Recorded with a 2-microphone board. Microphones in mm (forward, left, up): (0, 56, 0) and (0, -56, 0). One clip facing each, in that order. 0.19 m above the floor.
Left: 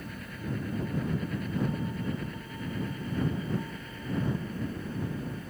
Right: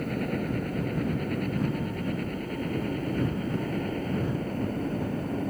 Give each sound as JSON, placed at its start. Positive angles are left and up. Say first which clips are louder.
{"t": 0.0, "sound": "a helicopter", "louder": "right 11 dB", "side_deg": -60}